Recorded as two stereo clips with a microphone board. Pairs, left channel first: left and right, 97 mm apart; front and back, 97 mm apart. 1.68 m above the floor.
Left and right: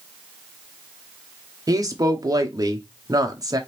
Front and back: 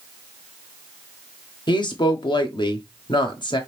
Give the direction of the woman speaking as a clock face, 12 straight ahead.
1 o'clock.